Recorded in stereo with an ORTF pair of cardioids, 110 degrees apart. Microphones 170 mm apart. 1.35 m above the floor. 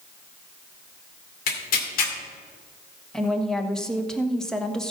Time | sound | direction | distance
1.5 | tearing paper | 65° left | 2 m
3.1 | a woman speaking | 5° left | 1.2 m